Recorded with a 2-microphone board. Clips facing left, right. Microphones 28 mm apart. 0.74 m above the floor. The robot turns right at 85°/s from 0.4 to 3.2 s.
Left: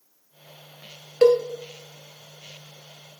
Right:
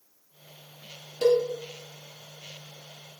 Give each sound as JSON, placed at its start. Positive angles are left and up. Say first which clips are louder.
{"t": 1.2, "sound": "a cowbell", "louder": "left 5 dB", "side_deg": 70, "distance_m": 0.9}